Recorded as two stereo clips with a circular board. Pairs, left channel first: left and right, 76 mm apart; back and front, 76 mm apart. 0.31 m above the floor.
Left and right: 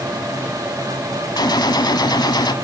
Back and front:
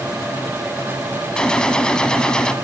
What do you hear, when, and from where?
1.4 s a gunshot: 100° left, 1.0 m